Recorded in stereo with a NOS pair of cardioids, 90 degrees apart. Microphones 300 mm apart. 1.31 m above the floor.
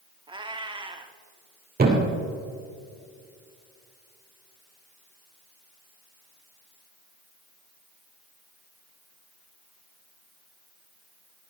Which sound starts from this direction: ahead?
A cat meowing, at 0.3 s.